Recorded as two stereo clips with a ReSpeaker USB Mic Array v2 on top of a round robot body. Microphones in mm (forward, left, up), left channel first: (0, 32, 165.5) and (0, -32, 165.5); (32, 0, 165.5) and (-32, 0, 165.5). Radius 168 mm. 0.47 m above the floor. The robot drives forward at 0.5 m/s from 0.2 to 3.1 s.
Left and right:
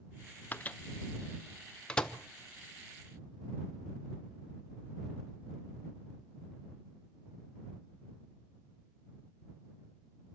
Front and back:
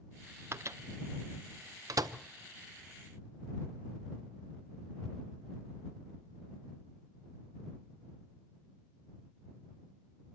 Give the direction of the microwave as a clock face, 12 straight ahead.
7 o'clock.